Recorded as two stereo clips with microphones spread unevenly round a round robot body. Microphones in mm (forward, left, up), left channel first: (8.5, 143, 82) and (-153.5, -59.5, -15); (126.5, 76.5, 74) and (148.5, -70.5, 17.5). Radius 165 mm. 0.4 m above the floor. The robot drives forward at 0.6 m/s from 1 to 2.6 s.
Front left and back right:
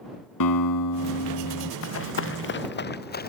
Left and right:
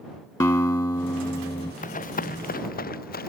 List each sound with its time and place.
0.4 s a guitar: 30° left
1.8 s running footsteps: 80° left; by 3.3 s 100° left